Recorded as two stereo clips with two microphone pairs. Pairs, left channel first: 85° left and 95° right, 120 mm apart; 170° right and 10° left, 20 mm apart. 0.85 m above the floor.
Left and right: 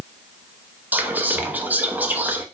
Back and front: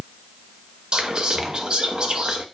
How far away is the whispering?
About 0.6 m.